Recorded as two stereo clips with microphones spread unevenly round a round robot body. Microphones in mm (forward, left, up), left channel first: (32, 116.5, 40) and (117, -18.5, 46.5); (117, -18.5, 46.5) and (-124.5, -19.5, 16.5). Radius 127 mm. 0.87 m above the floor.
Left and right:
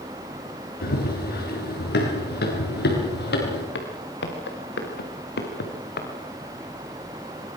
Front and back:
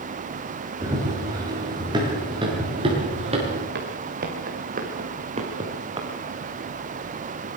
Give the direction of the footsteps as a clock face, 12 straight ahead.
8 o'clock.